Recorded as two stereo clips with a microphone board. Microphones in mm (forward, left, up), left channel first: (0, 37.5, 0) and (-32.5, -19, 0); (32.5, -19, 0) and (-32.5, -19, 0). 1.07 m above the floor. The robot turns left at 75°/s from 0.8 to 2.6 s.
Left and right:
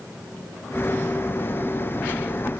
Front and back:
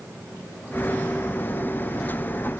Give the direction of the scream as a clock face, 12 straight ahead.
I don't hear a scream.